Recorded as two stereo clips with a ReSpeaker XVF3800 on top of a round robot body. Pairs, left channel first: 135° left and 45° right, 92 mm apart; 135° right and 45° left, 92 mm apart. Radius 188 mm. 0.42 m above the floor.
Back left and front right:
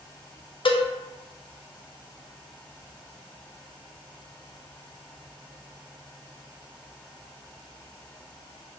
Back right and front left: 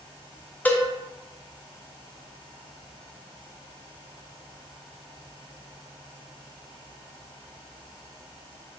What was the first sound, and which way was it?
A cowbell, 150° left.